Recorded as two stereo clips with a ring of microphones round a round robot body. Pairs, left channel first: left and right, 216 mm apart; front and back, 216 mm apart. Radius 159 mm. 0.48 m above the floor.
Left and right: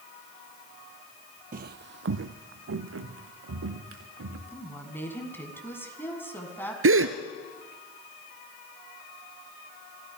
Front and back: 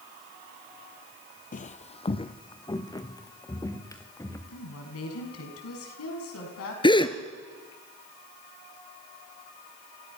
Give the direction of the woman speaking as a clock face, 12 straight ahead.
12 o'clock.